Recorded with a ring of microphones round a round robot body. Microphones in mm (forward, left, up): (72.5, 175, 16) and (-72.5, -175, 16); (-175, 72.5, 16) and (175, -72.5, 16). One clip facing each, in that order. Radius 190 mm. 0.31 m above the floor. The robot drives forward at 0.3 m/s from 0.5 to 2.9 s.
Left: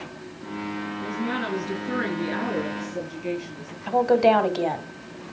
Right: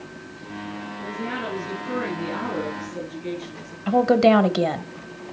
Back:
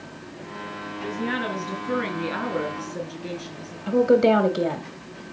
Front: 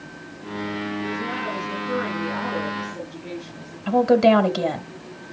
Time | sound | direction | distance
1.0 | a woman speaking | 135° left | 3.5 m
3.9 | a woman speaking | 85° right | 1.6 m